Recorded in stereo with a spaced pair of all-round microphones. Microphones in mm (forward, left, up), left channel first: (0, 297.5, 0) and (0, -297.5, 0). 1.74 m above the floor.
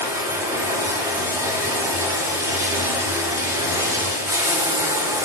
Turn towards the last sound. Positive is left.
turn(degrees=-5)  # may be behind; listen again after turning